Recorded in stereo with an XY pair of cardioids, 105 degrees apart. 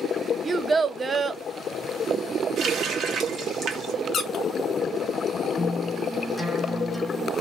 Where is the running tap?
65° right, 1.1 m.